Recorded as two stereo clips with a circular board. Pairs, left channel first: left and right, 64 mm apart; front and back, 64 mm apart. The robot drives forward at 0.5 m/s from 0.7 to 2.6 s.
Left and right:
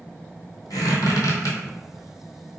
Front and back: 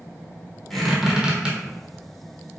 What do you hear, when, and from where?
0.7 s a squeak: 90° left, 1.0 m; by 1.6 s 110° left, 1.1 m